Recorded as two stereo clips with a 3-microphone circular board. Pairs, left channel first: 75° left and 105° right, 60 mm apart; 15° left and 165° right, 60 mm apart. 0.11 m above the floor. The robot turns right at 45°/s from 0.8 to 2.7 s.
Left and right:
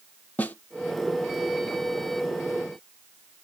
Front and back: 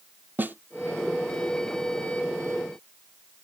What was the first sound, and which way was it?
A snare drum, 135° left.